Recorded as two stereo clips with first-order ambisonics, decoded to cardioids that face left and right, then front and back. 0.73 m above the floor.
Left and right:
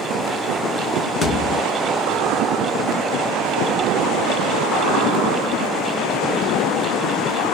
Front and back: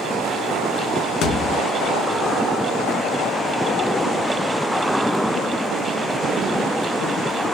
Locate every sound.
1.2 s a thud: 10° left, 0.8 m